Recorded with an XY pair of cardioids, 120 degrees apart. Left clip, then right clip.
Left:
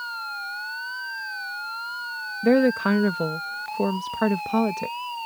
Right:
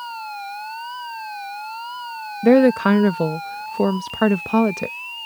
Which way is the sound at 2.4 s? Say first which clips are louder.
Right 6 dB; 30° right.